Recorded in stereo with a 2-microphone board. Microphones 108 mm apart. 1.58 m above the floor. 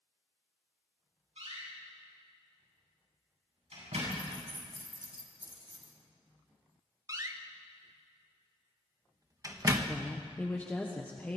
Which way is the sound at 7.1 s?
35° right (ahead or behind).